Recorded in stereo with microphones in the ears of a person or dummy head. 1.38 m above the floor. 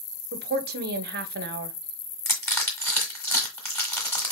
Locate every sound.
0.3 s a woman speaking: 45° right (ahead or behind), 0.6 m
2.2 s crushing: 10° left (ahead or behind), 1.7 m